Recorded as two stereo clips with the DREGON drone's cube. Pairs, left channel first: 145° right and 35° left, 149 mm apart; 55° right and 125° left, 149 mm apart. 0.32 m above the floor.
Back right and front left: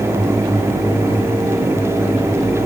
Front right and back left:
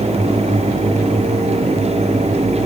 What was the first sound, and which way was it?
Only background noise.